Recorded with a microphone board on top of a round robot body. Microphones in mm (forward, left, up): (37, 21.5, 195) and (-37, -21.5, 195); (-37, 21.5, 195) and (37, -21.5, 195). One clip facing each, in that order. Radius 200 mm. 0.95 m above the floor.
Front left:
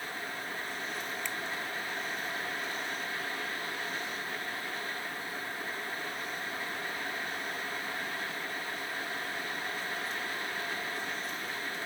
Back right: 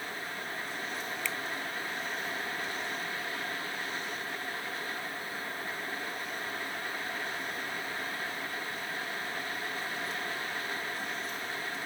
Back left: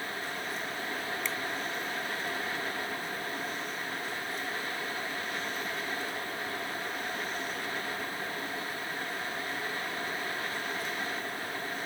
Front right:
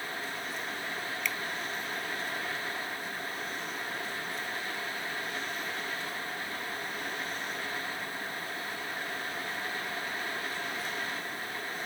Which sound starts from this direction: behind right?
A finger snap, at 1.2 s.